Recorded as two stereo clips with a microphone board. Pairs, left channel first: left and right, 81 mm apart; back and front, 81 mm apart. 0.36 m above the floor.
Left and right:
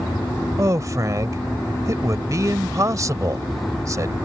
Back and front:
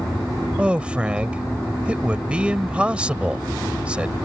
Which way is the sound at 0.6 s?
70° right.